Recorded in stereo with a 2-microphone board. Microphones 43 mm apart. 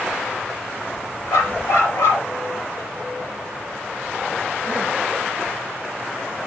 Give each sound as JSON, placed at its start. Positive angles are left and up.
{"t": 1.3, "sound": "a dog barking", "side_deg": 70, "distance_m": 5.0}